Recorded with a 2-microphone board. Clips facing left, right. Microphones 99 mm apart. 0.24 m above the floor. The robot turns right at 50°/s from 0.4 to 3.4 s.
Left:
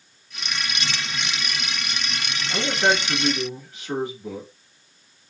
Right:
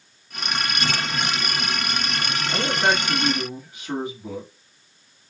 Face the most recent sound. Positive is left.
turn(degrees=-15)  # may be behind; listen again after turning